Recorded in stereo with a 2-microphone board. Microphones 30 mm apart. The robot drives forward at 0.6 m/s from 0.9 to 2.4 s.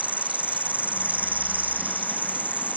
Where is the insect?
60° right (ahead or behind).